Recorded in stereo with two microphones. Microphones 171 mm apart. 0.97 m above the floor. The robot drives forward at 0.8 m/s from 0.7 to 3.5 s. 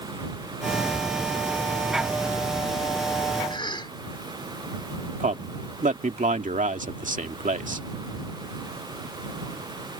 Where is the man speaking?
50° right (ahead or behind).